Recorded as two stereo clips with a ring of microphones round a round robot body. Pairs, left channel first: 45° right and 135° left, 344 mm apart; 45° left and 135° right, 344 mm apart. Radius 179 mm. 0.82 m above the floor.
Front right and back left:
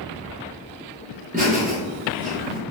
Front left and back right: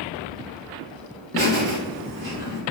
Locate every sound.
1.3 s laughter: 115° left, 1.0 m